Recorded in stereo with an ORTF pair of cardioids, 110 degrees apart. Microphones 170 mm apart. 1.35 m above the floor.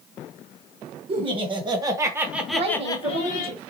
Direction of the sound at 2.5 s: 35° right.